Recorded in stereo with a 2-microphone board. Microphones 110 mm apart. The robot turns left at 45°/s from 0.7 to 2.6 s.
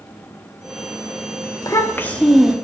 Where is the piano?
No piano in this recording.